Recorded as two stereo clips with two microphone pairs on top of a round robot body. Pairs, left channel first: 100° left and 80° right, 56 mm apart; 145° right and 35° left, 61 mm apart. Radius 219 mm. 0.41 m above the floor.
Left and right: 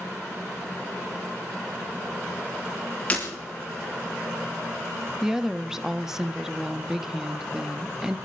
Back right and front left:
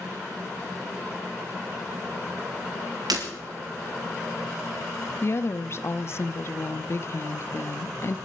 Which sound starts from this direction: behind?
A woman speaking, at 5.2 s.